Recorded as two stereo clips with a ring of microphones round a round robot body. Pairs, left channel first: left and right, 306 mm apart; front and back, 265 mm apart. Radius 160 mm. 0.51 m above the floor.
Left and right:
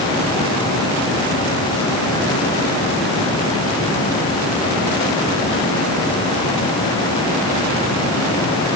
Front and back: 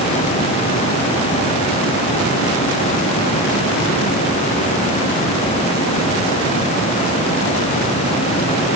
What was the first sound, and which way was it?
Only background noise.